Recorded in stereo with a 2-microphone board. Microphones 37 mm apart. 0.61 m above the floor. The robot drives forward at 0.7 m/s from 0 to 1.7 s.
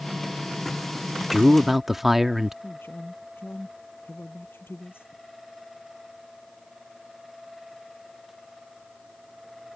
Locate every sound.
1.3 s a man speaking: 5° right (ahead or behind)
2.6 s a man speaking: 80° left